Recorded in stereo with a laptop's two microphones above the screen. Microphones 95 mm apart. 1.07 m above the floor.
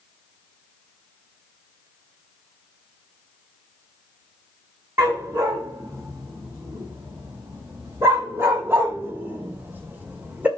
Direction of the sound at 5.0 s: 30° right (ahead or behind).